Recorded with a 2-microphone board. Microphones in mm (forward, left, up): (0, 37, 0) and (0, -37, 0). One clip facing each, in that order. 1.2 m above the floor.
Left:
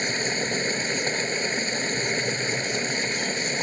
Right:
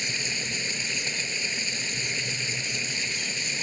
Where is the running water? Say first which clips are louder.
Left 7 dB; 45° left (ahead or behind).